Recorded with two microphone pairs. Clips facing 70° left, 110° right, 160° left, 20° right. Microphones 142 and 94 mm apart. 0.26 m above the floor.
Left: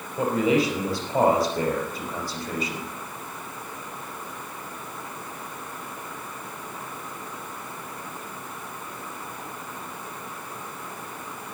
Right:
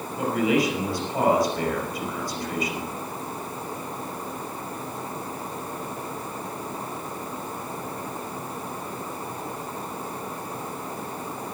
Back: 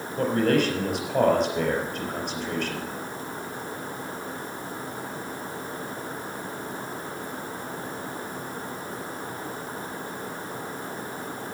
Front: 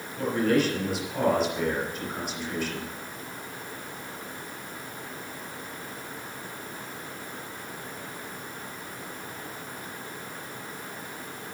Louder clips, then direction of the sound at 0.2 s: Left 1 dB, back 2 dB; 120° left.